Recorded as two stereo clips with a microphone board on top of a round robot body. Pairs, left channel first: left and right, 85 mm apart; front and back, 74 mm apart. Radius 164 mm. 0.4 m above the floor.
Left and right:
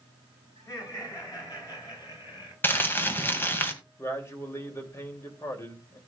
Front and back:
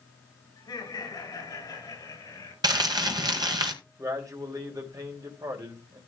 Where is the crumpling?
155° left, 1.9 m.